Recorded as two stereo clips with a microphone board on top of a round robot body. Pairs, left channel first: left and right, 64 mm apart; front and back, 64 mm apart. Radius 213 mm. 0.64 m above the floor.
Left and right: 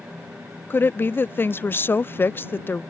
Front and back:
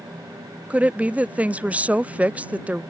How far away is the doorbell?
No doorbell in this recording.